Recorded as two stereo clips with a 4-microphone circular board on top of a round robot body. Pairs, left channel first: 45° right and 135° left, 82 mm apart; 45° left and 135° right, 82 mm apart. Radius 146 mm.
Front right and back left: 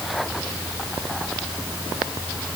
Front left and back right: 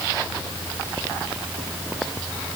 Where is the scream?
No scream in this recording.